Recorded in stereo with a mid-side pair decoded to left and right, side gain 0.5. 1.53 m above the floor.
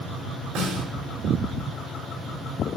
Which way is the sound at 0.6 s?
70° right.